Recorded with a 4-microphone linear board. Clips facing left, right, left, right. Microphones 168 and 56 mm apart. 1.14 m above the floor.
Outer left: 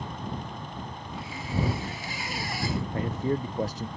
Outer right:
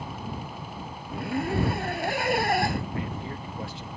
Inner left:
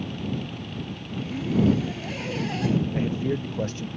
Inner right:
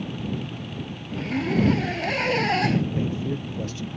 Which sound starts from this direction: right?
A zipper, at 1.1 s.